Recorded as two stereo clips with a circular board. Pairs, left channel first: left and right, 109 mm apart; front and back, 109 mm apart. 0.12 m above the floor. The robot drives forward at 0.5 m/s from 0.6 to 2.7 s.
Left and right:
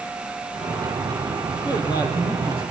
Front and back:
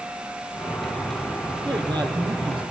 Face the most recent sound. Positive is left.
turn(degrees=140)